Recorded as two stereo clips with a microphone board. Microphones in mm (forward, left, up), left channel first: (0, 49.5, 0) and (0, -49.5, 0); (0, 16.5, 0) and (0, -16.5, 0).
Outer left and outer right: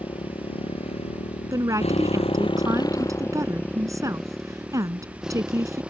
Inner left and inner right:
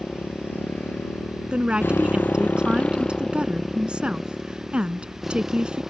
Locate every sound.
0.0 s a motorcycle: 55° left (ahead or behind); by 5.9 s 10° right (ahead or behind)
1.5 s a woman speaking: 30° right (ahead or behind)